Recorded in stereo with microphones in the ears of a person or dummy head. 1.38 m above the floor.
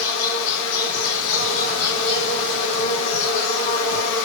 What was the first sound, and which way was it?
An insect, 65° left (ahead or behind).